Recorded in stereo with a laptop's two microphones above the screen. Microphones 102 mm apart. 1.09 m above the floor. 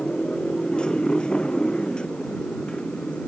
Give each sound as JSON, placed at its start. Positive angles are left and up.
{"t": 0.0, "sound": "a motorcycle", "side_deg": 10}